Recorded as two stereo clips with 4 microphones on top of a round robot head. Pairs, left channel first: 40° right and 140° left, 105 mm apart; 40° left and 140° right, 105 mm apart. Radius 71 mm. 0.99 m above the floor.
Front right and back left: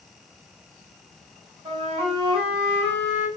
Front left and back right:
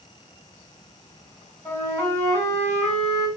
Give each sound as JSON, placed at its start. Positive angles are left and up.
{"t": 1.6, "sound": "a flute", "azimuth_deg": 110, "distance_m": 2.5}